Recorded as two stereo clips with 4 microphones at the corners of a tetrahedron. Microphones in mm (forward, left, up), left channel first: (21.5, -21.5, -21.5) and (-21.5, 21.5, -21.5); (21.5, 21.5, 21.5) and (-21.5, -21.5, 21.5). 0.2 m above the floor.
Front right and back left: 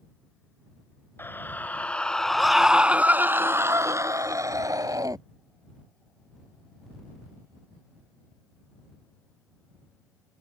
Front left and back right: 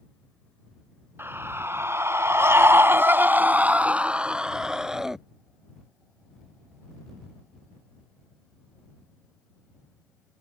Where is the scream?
90° right; by 5.2 s 145° left.